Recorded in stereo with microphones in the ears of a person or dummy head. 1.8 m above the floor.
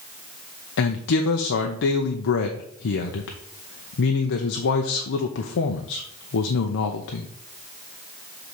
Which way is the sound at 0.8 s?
70° left (ahead or behind).